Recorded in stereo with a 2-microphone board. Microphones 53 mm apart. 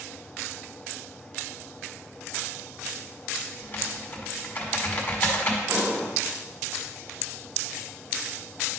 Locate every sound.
3.6 s typing on a keyboard: 35° left (ahead or behind), 1.5 m
5.7 s an explosion: 40° right (ahead or behind), 3 m